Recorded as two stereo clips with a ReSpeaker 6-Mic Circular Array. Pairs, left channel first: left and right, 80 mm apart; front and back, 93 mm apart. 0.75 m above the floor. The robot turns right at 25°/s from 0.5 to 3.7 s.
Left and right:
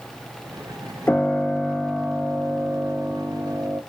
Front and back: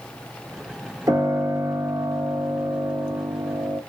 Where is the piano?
145° left, 0.7 m; by 3.8 s 150° right, 0.7 m.